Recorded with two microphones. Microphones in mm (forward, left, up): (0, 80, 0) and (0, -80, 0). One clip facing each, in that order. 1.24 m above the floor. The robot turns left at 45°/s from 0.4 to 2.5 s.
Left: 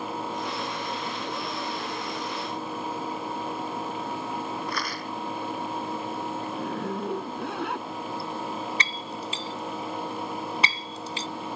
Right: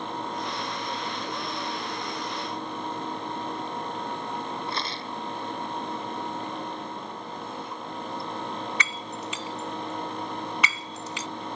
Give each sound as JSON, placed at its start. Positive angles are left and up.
{"t": 4.7, "sound": "a rattle", "side_deg": -25}
{"t": 6.5, "sound": "a zipper", "side_deg": 85}
{"t": 8.8, "sound": "breaking glass", "side_deg": 35}